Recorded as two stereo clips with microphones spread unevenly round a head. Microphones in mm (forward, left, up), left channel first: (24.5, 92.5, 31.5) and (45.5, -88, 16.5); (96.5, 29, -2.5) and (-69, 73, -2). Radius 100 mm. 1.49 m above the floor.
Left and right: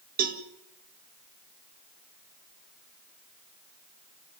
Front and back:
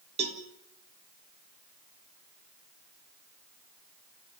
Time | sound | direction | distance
0.2 | a cowbell | 130° right | 2.0 m